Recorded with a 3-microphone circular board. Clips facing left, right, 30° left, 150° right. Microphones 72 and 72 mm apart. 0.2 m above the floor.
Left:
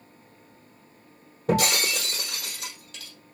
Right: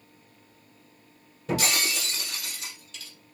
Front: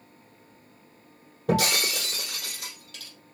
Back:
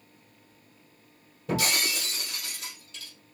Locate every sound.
1.5 s breaking glass: 50° left, 3.5 m